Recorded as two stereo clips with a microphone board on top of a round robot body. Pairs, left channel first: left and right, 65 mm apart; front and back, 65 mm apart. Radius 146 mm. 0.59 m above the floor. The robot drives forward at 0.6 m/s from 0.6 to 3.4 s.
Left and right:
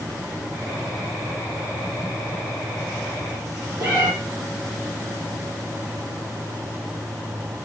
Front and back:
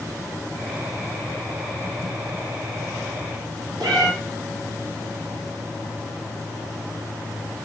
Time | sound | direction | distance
3.8 | a cat meowing | 160° right | 3.5 m